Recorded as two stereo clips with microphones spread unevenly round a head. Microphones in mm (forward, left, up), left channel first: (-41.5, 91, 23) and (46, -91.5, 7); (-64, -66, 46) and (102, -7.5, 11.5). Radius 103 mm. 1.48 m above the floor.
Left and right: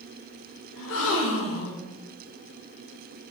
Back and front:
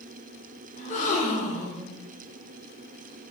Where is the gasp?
145° left, 0.7 m.